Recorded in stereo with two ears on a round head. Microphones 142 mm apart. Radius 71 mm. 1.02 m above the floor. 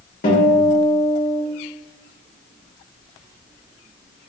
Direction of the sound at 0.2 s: 60° left (ahead or behind).